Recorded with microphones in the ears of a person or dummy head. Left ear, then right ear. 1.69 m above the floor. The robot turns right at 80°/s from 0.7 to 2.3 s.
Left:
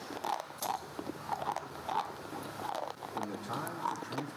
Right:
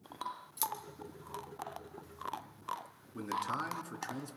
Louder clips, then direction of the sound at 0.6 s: Left 2 dB; 75° right (ahead or behind).